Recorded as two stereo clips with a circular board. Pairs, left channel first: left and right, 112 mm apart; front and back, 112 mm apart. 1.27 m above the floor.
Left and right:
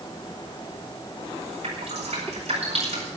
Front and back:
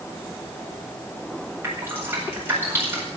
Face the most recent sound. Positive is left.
turn(degrees=-110)